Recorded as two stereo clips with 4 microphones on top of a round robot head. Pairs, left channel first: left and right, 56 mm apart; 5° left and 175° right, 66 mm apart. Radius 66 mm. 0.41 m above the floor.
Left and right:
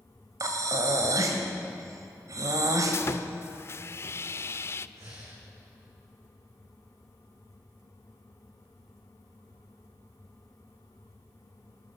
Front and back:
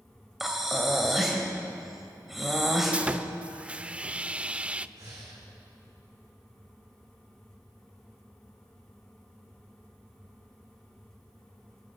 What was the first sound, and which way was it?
Breathing, 90° right.